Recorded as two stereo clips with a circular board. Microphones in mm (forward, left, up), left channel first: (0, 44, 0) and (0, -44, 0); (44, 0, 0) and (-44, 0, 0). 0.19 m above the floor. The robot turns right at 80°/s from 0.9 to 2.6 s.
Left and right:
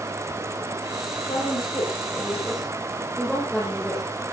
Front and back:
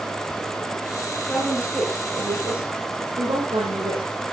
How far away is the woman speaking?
About 7.5 m.